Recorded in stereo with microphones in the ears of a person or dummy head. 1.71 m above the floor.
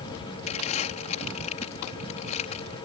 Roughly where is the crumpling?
Left.